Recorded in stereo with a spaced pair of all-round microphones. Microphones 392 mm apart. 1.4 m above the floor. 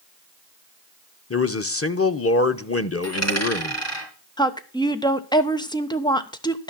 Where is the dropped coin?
40° left (ahead or behind), 4.5 m.